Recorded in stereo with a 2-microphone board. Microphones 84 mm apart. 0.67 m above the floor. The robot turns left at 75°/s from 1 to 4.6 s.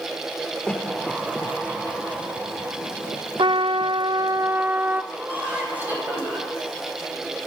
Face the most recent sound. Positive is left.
turn(degrees=-20)  # may be behind; listen again after turning